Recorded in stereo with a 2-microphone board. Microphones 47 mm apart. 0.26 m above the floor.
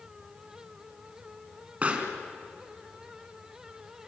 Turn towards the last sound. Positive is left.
turn(degrees=-30)  # may be behind; listen again after turning